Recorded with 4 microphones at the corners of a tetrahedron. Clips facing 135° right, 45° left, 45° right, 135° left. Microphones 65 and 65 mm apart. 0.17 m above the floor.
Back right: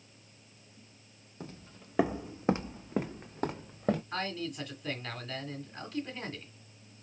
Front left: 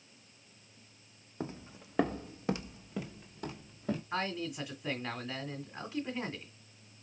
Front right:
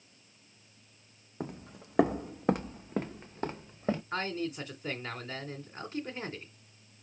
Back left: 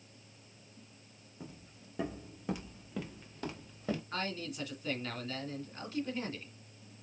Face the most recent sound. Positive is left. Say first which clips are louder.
# even, front right 4 dB
turn(degrees=-20)